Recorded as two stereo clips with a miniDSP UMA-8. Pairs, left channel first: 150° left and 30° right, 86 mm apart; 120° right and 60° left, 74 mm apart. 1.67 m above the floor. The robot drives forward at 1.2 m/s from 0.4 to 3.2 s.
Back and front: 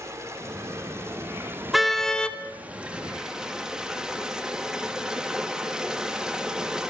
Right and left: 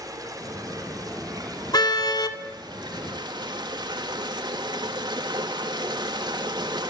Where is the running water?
25° left, 5.5 m; by 6.9 s 50° left, 3 m.